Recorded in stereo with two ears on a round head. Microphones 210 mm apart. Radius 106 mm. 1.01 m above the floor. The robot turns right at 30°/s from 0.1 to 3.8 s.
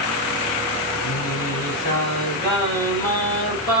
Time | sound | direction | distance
1.0 | singing | 110° left | 3.5 m